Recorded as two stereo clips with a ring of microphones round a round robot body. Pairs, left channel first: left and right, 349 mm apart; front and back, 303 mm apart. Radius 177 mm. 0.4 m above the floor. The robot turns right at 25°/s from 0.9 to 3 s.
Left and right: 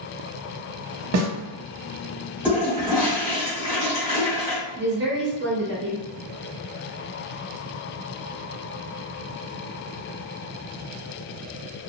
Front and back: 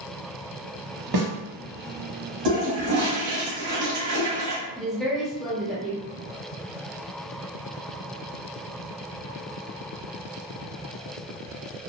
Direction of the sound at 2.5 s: 175° right.